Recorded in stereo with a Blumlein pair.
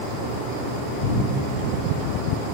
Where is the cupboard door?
60° left, 1.0 m.